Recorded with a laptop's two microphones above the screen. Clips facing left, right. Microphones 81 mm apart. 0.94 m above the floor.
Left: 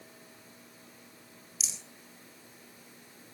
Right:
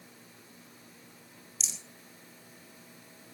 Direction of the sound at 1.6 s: 5° left (ahead or behind).